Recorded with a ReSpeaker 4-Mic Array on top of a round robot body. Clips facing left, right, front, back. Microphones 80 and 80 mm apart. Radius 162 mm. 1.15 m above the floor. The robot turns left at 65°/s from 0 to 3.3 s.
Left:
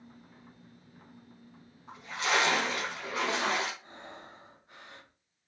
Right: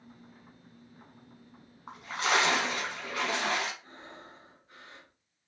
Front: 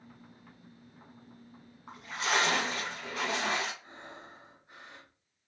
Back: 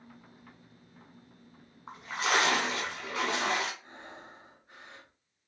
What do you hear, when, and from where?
1.9 s a splash: 120° right, 0.9 m; by 3.7 s 145° left, 0.9 m
3.8 s breathing: 80° left, 2.5 m